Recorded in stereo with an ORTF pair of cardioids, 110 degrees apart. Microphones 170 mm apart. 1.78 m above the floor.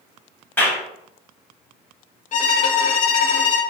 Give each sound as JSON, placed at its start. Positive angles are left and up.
{"t": 0.6, "sound": "a clap", "azimuth_deg": 10, "distance_m": 1.9}
{"t": 2.3, "sound": "a violin", "azimuth_deg": 50, "distance_m": 0.9}